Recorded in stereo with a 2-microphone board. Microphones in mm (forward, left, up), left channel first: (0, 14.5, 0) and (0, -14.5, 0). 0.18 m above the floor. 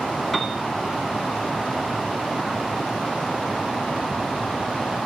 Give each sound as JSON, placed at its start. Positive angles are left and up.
{"t": 0.3, "sound": "a piano", "side_deg": 5, "distance_m": 0.8}